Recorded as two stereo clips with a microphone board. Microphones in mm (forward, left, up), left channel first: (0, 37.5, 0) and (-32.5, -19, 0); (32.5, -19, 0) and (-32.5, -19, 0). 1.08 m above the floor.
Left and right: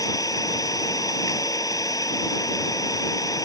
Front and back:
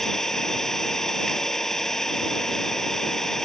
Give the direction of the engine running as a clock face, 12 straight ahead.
9 o'clock.